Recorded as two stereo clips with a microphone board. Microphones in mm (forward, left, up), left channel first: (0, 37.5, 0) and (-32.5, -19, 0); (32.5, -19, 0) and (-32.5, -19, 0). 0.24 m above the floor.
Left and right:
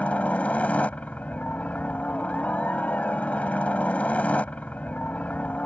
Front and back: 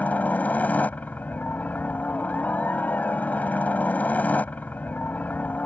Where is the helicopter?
25° left.